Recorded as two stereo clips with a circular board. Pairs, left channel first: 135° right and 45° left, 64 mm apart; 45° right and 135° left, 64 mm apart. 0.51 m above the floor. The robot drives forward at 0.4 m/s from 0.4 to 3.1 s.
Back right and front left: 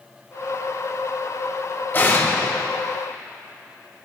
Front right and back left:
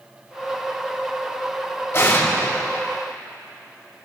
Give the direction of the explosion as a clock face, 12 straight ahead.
3 o'clock.